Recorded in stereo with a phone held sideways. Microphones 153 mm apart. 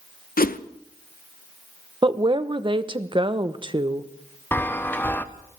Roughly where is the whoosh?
Left.